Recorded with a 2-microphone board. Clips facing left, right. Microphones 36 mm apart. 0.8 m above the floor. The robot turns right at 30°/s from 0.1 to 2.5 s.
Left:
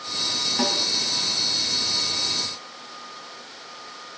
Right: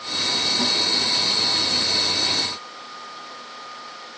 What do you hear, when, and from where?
0.6 s a snare drum: 35° left (ahead or behind), 3.5 m; by 0.8 s 25° left (ahead or behind), 3.5 m